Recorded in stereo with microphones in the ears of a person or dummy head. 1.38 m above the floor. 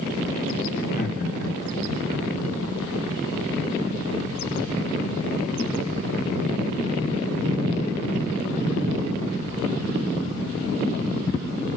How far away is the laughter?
About 3.5 m.